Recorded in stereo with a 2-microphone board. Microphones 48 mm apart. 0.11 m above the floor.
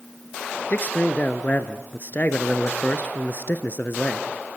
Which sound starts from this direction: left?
A man speaking, at 0.7 s.